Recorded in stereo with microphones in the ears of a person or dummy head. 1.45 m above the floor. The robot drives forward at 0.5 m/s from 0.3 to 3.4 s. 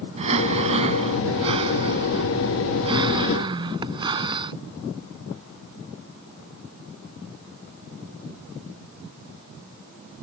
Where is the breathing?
25° right (ahead or behind); by 4.5 s 20° right (ahead or behind).